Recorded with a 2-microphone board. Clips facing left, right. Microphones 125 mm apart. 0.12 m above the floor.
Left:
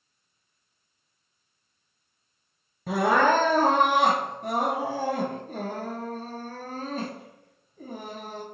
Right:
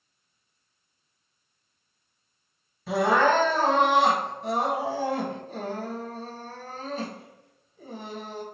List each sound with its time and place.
2.9 s crying: 50° left (ahead or behind), 1.7 m